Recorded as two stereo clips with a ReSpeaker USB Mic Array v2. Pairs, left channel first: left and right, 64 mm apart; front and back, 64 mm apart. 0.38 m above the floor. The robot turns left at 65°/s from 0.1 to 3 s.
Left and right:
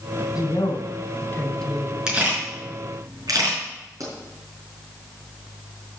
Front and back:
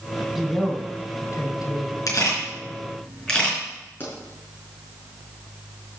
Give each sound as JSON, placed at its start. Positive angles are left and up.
{"t": 0.3, "sound": "a woman speaking", "azimuth_deg": 95, "distance_m": 2.5}
{"t": 2.1, "sound": "a camera shutter", "azimuth_deg": -10, "distance_m": 5.0}
{"t": 4.0, "sound": "a pop", "azimuth_deg": -55, "distance_m": 5.0}